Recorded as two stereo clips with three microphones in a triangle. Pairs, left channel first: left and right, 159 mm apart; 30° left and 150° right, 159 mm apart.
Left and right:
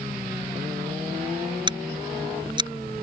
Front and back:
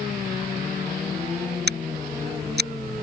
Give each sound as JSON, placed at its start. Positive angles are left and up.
{"t": 1.7, "sound": "scissors", "azimuth_deg": -155}